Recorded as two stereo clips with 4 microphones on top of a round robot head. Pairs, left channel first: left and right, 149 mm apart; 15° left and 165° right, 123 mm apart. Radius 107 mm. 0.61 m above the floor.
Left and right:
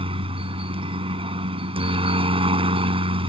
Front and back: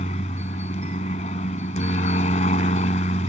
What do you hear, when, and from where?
0.0 s a helicopter: 35° right